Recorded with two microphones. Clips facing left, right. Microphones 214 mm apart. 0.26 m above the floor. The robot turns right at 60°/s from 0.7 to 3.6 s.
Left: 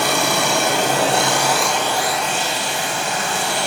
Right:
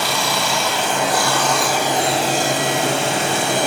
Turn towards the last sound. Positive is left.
turn(degrees=-60)